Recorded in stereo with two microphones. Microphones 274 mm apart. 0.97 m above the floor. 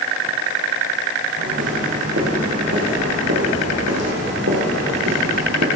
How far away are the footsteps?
About 4.5 m.